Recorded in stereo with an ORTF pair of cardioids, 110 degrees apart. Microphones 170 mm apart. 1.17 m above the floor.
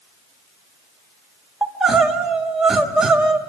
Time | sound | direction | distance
1.6 | crying | 5° right | 1.8 m